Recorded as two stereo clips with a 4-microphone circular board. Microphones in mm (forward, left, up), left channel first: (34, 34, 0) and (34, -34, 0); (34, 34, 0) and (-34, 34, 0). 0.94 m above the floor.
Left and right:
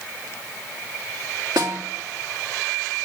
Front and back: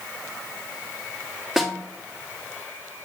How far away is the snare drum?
About 1.6 m.